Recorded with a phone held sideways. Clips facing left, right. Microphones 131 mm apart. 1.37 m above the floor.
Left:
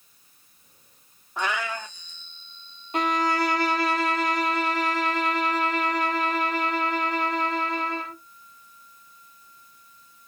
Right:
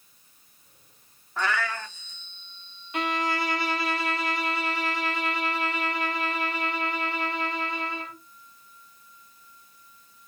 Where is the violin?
40° left (ahead or behind), 0.6 m.